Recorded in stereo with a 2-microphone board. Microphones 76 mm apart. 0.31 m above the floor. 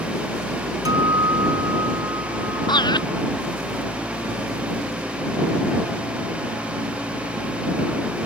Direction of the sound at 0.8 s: 60° right (ahead or behind).